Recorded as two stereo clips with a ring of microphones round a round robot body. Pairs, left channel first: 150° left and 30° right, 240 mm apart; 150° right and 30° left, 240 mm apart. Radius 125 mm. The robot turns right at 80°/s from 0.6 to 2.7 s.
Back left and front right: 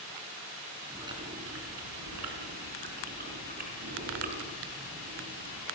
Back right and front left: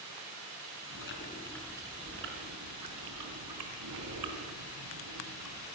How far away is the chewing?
About 4 m.